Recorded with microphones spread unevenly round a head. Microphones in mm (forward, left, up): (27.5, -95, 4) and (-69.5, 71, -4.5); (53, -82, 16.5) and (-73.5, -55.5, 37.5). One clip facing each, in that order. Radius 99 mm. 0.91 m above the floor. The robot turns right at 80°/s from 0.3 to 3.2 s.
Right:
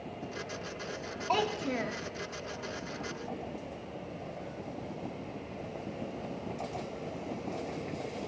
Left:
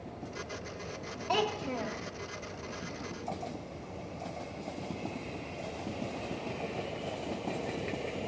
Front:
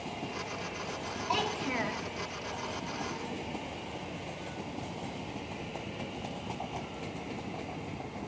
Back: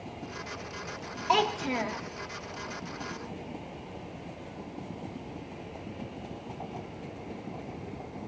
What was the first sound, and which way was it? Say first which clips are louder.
A child speaking: even, back 7 dB; 165° right.